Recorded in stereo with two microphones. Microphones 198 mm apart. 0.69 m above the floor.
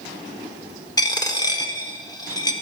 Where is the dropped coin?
15° left (ahead or behind), 0.7 m.